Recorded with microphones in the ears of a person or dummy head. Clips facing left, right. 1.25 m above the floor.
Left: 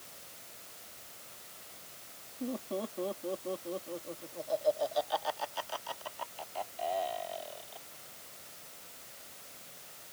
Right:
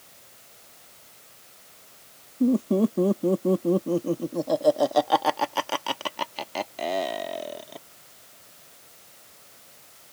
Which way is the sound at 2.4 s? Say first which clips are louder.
Right 16 dB; 55° right (ahead or behind).